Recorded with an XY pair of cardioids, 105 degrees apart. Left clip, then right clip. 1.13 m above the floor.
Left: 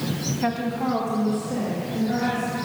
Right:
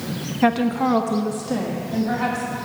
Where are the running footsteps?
No running footsteps in this recording.